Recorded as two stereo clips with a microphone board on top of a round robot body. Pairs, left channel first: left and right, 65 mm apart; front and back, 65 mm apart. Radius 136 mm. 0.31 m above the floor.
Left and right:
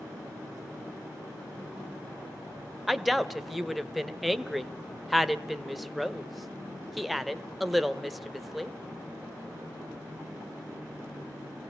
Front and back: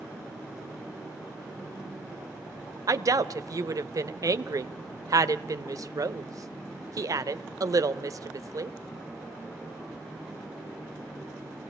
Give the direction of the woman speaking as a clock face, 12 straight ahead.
6 o'clock.